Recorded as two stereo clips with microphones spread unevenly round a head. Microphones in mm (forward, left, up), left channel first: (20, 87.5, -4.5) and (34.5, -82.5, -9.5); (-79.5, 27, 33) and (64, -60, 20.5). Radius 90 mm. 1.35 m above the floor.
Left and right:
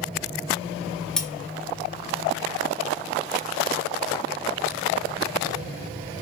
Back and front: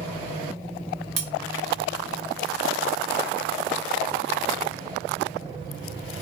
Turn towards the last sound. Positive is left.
turn(degrees=15)